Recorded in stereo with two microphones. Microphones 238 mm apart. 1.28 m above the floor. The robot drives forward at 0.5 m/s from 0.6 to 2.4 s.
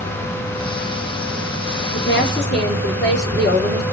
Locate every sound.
1.9 s a woman speaking: 45° left (ahead or behind), 4 m